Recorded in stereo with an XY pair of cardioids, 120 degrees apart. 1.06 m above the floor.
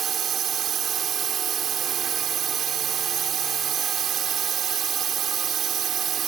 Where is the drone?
50° right.